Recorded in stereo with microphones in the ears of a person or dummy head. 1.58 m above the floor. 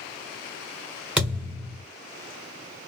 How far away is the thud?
About 1.6 m.